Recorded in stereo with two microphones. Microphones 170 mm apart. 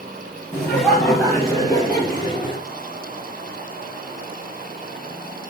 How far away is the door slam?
I don't hear a door slam.